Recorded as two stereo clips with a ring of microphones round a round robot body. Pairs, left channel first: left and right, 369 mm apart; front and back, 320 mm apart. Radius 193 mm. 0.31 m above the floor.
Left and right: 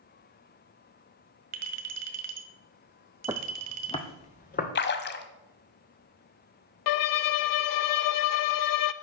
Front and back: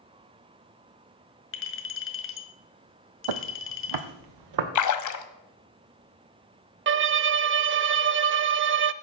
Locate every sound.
1.5 s a clink: 45° right, 1.7 m
3.3 s footsteps: 170° right, 0.8 m; by 4.7 s 160° left, 2 m
4.8 s a splash: 30° left, 1.2 m
6.9 s a violin: 125° left, 0.7 m